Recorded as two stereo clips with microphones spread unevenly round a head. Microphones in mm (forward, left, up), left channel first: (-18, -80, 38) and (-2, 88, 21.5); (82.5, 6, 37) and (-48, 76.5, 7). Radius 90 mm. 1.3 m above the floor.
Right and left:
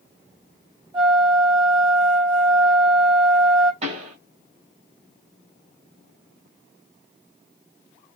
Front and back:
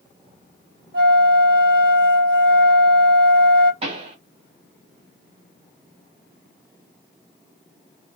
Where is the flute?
150° left, 1.6 m.